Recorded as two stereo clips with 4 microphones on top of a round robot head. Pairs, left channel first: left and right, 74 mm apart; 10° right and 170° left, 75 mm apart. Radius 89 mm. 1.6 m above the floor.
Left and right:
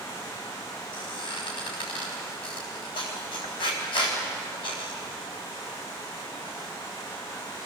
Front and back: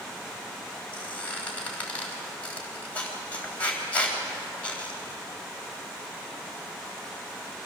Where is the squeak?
60° left, 3.5 m.